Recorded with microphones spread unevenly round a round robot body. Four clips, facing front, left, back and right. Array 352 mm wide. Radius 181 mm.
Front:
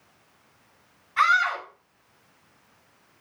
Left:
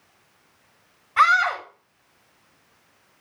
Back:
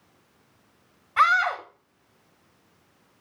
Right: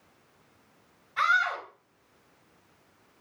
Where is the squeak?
I don't hear a squeak.